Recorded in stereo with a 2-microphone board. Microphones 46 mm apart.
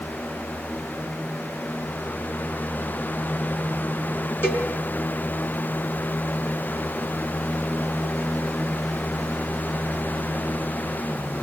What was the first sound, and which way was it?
A cowbell, 55° left (ahead or behind).